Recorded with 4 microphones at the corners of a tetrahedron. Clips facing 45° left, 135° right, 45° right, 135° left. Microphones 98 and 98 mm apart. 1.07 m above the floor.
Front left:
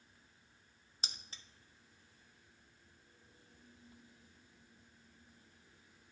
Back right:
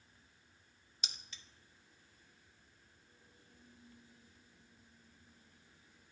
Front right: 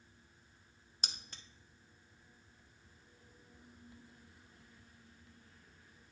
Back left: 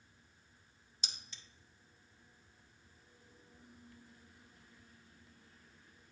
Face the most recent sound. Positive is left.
turn(degrees=-5)